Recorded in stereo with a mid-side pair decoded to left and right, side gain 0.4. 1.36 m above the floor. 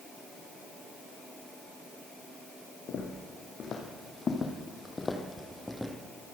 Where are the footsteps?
70° left, 4.5 m; by 6.0 s straight ahead, 3 m.